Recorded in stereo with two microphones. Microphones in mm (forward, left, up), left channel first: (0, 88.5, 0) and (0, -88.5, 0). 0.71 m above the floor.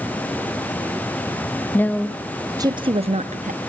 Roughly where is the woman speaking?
Centre.